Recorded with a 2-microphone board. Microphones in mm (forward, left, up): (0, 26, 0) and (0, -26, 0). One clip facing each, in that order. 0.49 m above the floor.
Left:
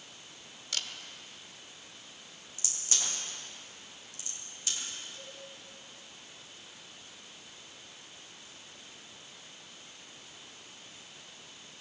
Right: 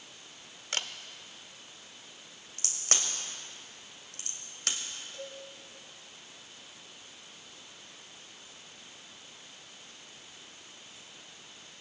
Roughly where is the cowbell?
Right.